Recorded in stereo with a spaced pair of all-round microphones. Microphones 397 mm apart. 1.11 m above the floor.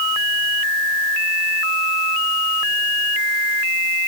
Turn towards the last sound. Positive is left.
No sound to turn to.